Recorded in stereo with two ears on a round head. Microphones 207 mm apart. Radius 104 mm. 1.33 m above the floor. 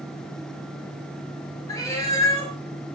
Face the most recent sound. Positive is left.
turn(degrees=15)  # may be behind; listen again after turning